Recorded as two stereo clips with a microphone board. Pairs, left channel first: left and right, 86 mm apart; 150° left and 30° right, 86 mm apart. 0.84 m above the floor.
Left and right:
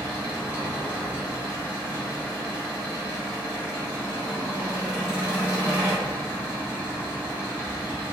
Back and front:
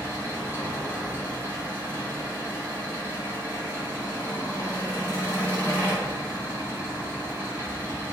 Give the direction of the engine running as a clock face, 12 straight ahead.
11 o'clock.